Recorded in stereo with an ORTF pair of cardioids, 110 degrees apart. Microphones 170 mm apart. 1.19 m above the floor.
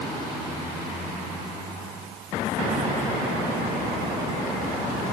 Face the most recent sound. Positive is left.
No sound to turn to.